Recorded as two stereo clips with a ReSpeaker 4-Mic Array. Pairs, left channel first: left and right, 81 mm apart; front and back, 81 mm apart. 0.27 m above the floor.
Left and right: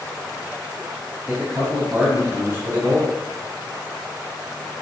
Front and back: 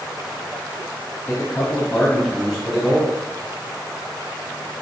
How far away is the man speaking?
About 1.3 m.